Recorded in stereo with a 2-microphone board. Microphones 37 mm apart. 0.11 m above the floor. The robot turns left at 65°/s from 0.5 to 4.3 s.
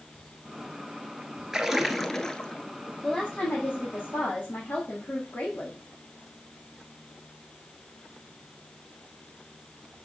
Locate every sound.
1.5 s a splash: 155° right, 0.9 m; by 2.6 s 130° left, 0.9 m
3.0 s a woman speaking: 165° left, 3.5 m; by 5.8 s 80° left, 3.5 m